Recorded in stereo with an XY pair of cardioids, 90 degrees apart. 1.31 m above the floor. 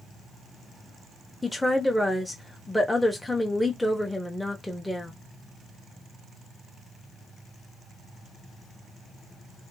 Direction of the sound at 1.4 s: 10° left.